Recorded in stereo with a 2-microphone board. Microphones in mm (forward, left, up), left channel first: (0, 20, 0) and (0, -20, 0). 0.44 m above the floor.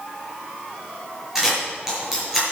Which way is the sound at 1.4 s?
10° right (ahead or behind).